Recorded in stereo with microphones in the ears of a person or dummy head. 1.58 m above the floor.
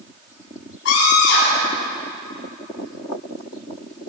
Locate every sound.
0.8 s a scream: 80° left, 8.5 m